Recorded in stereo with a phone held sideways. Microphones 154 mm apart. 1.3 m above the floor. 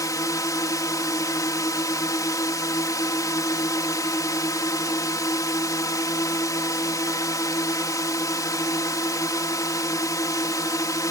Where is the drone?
20° left (ahead or behind).